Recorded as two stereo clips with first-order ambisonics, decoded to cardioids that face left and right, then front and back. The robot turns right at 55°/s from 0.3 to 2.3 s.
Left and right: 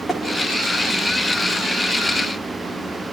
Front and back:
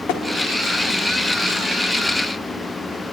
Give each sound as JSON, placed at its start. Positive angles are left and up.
{"t": 0.1, "sound": "tapping", "azimuth_deg": 10, "distance_m": 2.0}